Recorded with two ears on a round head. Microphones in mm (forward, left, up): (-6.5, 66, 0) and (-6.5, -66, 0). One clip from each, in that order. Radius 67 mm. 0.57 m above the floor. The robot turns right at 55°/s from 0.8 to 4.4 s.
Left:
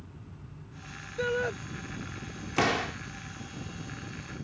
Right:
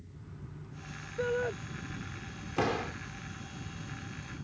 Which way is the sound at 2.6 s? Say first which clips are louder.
Left 5 dB; 50° left (ahead or behind).